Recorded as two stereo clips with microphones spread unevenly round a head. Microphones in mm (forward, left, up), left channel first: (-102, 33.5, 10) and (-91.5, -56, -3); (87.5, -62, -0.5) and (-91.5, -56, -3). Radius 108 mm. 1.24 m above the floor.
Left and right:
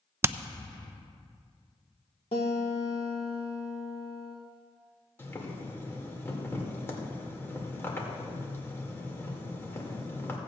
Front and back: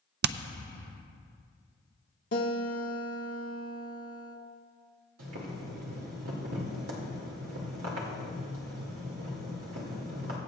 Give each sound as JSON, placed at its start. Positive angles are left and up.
{"t": 0.2, "sound": "hammering", "azimuth_deg": -155, "distance_m": 0.5}
{"t": 2.3, "sound": "a guitar", "azimuth_deg": 40, "distance_m": 1.6}
{"t": 5.2, "sound": "boiling", "azimuth_deg": 160, "distance_m": 2.5}